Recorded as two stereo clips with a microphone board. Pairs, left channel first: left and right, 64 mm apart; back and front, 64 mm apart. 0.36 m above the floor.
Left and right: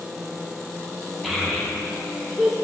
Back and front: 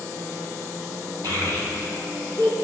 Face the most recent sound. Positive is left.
turn(degrees=0)